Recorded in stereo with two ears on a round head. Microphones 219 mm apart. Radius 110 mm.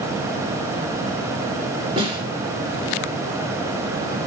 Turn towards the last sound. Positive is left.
turn(degrees=-25)  # may be behind; listen again after turning